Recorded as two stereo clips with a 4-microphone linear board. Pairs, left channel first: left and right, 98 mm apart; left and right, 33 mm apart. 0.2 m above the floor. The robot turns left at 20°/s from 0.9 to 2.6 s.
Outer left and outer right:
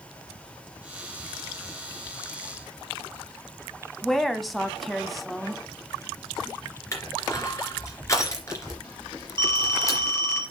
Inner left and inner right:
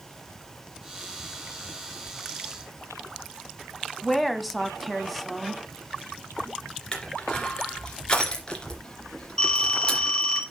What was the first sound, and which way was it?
A woman speaking, centre (ahead or behind).